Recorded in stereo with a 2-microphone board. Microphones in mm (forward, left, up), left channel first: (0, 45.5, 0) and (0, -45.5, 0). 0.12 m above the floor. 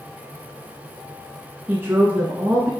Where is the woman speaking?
25° right (ahead or behind), 1.1 m.